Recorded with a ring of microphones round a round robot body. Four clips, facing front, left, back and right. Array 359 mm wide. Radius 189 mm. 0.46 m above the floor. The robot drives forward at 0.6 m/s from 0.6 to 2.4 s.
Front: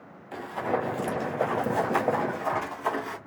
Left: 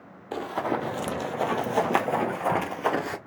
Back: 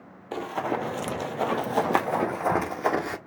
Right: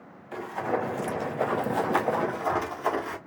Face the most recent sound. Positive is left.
turn(degrees=135)